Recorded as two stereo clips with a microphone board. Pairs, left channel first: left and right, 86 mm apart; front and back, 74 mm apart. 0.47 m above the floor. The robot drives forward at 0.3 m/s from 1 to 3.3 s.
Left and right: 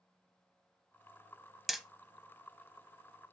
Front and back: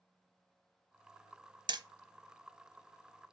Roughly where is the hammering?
Behind.